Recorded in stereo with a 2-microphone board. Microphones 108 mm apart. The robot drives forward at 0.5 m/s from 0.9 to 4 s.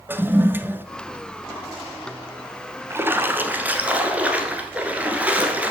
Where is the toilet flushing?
20° right (ahead or behind), 0.5 m.